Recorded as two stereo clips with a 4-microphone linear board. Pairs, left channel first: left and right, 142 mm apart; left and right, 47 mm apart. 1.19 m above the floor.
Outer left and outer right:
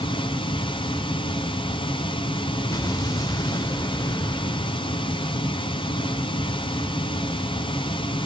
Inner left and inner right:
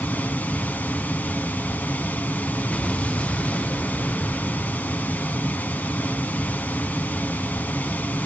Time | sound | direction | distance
0.0 | running water | 35° left (ahead or behind) | 1.4 m
2.7 | an explosion | 25° left (ahead or behind) | 0.9 m